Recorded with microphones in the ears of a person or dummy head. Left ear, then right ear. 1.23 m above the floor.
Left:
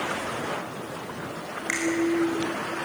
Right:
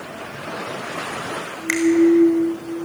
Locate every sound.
1.7 s a finger snap: 20° right (ahead or behind), 4 m